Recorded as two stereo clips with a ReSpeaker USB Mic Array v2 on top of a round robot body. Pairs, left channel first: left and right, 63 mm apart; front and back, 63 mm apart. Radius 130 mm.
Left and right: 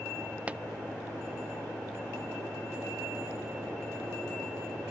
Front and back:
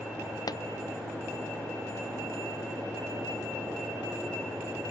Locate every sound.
0.5 s a pop: 20° right